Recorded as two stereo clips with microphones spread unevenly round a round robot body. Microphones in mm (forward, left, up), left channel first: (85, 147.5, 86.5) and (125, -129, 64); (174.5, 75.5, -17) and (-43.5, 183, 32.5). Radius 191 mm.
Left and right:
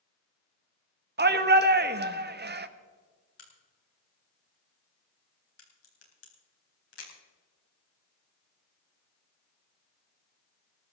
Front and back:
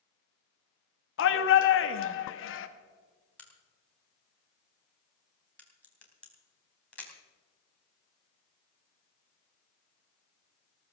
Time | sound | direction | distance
1.2 | a shout | 35° right | 1.2 m
3.4 | a crack | 60° left | 4 m